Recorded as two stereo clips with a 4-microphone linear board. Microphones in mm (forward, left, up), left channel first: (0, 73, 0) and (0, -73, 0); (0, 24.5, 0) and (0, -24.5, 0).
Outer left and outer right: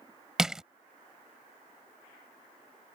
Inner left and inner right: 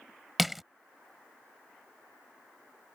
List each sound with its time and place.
0.4 s crushing: 5° right (ahead or behind)